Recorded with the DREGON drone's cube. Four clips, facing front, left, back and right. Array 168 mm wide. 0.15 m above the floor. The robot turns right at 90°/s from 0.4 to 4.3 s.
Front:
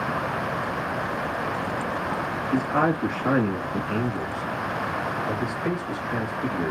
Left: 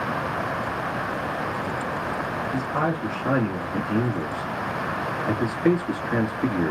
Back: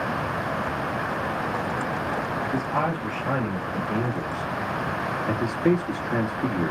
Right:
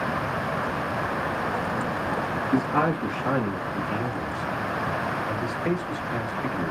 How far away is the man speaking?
About 1.9 m.